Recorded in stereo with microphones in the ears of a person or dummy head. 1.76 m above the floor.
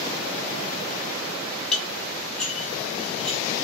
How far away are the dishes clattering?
About 1.5 m.